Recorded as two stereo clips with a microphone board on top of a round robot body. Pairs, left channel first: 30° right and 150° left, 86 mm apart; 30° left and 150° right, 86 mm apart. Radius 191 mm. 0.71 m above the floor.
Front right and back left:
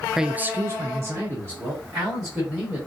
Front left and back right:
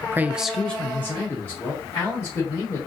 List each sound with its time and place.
0.1 s a man speaking: 125° right, 0.5 m; by 2.8 s 90° left, 2 m